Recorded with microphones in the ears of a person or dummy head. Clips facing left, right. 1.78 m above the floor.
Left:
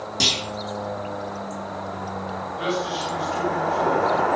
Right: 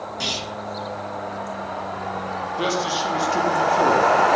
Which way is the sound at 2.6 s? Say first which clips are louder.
Right 2 dB; 80° right.